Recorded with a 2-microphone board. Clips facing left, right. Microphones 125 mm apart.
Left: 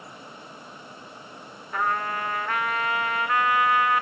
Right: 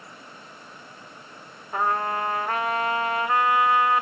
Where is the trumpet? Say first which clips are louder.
Right 2 dB; 25° right (ahead or behind), 0.7 m.